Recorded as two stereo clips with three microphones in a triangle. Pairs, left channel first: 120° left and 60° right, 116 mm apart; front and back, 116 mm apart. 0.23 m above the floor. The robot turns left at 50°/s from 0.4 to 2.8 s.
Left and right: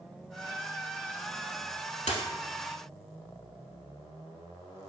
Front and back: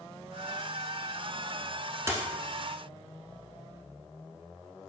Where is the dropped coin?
115° left, 0.8 m; by 2.3 s 105° left, 0.8 m.